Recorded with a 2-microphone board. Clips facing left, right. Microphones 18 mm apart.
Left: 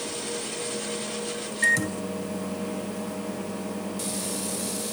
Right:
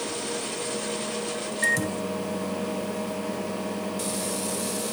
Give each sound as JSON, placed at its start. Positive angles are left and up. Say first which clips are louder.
{"t": 1.6, "sound": "a microwave", "louder": "left 2 dB", "side_deg": 15}